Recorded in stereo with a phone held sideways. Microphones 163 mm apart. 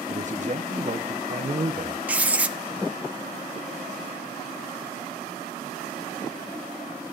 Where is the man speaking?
50° right (ahead or behind), 0.8 m.